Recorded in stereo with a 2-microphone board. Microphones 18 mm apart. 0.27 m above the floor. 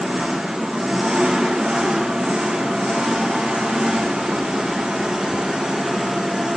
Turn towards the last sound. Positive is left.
turn(degrees=-55)  # may be behind; listen again after turning